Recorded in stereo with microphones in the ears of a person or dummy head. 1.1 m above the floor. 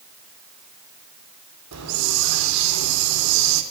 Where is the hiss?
85° right, 3 m.